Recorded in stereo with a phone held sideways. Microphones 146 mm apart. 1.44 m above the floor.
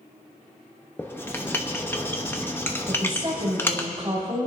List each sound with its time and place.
1.0 s writing: 15° left (ahead or behind), 1.0 m
2.9 s a woman speaking: 30° right (ahead or behind), 3 m